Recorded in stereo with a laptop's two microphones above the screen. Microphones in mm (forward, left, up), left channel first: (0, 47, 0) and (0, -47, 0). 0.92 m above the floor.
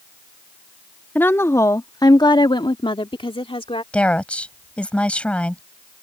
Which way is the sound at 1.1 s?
20° left (ahead or behind).